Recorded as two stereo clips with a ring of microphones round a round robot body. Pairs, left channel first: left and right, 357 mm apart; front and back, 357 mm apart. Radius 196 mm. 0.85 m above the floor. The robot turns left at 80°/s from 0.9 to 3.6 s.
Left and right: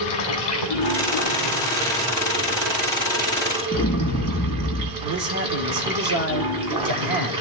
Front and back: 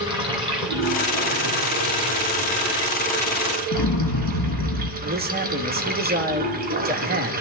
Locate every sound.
0.0 s running water: 100° left, 2.5 m; by 7.4 s 115° right, 2.5 m
3.7 s an explosion: 15° left, 1.1 m
5.0 s a man speaking: 120° right, 1.6 m